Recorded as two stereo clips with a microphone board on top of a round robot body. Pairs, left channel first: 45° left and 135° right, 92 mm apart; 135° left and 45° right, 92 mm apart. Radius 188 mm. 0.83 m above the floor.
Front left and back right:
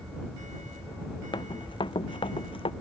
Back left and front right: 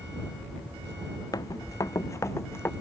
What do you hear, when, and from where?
1.3 s running footsteps: 85° left; by 2.7 s 70° left